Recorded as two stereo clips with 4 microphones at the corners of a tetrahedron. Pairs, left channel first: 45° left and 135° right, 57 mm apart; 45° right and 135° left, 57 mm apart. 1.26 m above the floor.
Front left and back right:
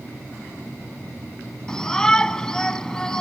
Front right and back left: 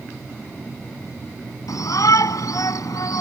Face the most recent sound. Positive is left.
turn(degrees=-35)